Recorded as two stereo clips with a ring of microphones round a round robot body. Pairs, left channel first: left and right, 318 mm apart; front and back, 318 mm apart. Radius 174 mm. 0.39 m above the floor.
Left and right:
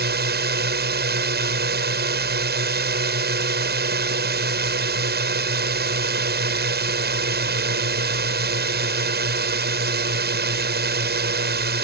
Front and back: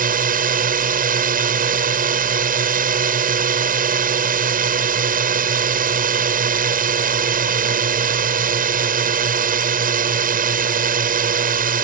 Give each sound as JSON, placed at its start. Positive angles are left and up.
{"t": 0.0, "sound": "a drone", "azimuth_deg": -130}